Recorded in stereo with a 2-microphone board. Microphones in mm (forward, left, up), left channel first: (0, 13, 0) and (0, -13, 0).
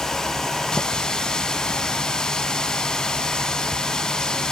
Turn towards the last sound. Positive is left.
turn(degrees=30)  # may be behind; listen again after turning